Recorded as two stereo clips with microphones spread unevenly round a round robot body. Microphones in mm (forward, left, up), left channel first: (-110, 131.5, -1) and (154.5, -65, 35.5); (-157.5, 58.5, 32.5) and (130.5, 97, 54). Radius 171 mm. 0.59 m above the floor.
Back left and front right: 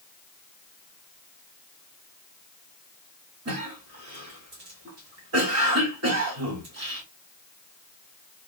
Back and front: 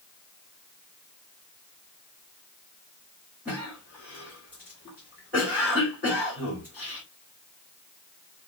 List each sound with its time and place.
3.5 s a cough: 80° right, 1.4 m